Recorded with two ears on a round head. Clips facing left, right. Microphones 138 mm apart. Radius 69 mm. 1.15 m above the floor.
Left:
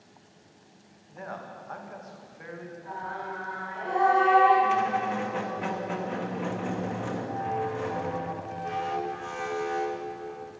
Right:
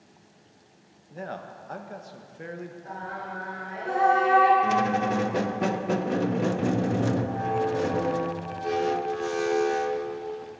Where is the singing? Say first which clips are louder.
Left 2 dB; 50° right (ahead or behind), 4.5 m.